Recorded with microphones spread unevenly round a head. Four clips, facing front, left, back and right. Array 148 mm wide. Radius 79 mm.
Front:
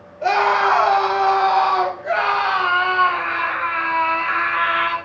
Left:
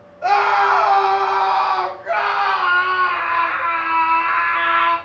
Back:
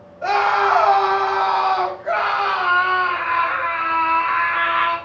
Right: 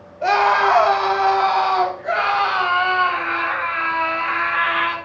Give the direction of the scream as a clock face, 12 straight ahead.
2 o'clock.